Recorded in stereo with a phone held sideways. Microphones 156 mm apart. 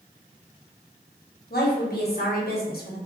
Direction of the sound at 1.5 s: 85° left.